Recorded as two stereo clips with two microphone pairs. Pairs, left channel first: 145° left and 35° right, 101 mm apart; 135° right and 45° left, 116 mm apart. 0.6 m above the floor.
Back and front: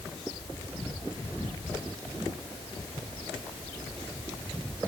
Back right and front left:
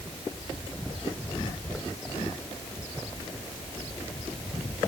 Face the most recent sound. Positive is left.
No sound to turn to.